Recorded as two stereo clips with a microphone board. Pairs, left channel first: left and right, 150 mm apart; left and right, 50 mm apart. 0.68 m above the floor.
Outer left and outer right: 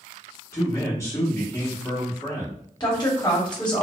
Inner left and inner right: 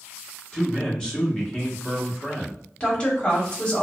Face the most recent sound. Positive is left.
turn(degrees=30)  # may be behind; listen again after turning